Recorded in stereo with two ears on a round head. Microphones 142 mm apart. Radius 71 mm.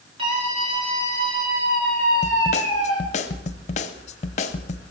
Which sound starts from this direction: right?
A scream, at 0.2 s.